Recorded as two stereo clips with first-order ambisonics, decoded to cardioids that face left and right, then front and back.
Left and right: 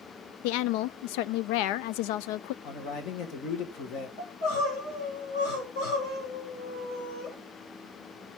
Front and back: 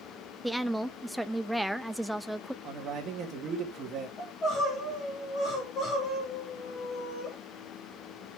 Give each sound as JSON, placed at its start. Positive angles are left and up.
{"t": 0.4, "sound": "a woman speaking", "azimuth_deg": 90, "distance_m": 0.5}
{"t": 2.6, "sound": "a man speaking", "azimuth_deg": 120, "distance_m": 3.0}
{"t": 4.2, "sound": "crying", "azimuth_deg": 60, "distance_m": 6.0}